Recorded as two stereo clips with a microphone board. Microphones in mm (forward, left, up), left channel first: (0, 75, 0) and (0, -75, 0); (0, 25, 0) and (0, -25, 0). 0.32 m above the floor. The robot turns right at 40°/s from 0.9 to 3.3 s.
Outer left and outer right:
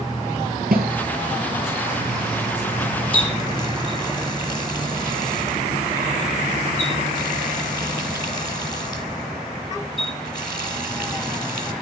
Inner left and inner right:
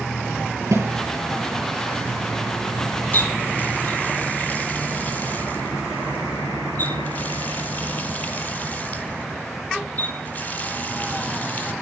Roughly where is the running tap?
Left.